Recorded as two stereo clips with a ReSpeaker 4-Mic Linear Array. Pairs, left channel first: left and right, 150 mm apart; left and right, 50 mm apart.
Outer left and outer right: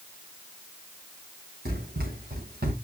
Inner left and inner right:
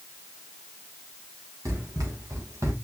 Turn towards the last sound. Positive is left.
turn(degrees=-80)